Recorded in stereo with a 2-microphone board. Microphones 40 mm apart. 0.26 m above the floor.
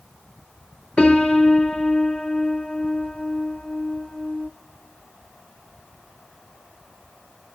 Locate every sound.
1.0 s a piano: 30° left (ahead or behind), 0.7 m